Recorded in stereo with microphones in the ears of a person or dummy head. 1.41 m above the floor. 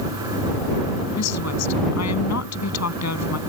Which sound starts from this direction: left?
A woman speaking, at 1.2 s.